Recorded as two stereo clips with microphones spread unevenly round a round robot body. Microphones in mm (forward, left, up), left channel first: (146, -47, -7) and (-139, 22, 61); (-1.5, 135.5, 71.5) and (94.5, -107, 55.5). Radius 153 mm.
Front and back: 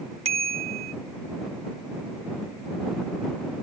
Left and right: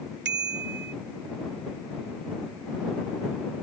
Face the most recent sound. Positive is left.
turn(degrees=-120)